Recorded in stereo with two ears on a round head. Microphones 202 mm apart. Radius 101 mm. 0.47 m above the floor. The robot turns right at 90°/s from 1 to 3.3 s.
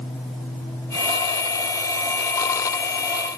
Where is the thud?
I don't hear a thud.